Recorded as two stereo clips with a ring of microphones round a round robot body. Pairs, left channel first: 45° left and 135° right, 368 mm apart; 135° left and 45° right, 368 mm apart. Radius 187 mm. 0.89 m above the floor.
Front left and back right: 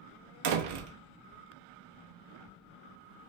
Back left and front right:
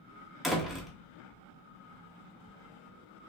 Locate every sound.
0.4 s a door slam: 135° right, 1.0 m